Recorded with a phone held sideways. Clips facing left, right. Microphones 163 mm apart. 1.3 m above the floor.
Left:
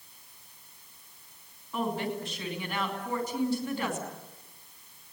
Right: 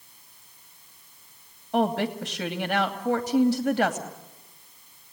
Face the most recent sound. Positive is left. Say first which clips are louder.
# right 7 dB
turn(degrees=-75)  # may be behind; listen again after turning